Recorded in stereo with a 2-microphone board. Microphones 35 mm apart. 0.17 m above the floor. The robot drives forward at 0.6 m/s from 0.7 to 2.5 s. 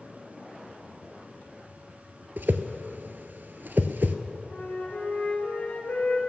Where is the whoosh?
75° right (ahead or behind), 0.7 m; by 4.2 s 70° right (ahead or behind), 0.7 m.